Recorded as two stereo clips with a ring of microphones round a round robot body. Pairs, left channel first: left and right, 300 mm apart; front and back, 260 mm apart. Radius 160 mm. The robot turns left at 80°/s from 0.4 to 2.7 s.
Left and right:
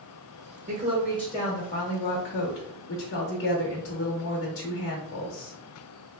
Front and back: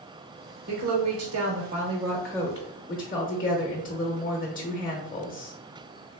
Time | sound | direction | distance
0.7 | a woman speaking | 145° right | 0.8 m